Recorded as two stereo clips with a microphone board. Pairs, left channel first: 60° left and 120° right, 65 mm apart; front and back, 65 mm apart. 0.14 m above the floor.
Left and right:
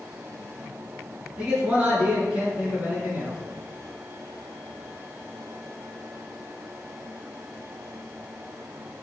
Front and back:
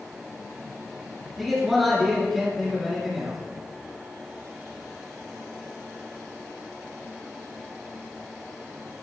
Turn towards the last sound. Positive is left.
turn(degrees=-90)